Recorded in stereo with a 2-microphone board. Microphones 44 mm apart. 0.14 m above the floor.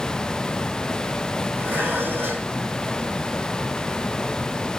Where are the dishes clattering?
45° right (ahead or behind), 4.5 m.